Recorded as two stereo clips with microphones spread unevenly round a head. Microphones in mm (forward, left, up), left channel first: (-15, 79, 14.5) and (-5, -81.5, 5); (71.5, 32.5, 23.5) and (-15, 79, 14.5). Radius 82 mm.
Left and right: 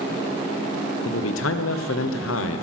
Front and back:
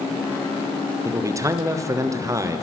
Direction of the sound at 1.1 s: 90° left.